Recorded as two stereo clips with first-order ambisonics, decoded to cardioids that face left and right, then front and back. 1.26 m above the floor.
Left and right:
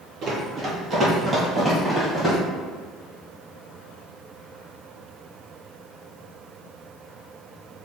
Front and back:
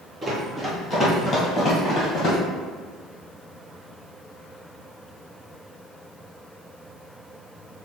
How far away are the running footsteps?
About 1.4 m.